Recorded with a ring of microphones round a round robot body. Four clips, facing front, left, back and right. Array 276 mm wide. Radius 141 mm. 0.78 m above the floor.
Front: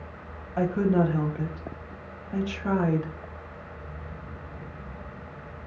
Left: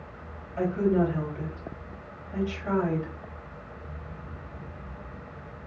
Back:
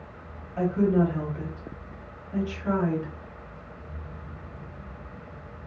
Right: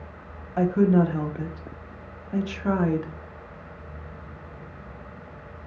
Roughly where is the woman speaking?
Ahead right.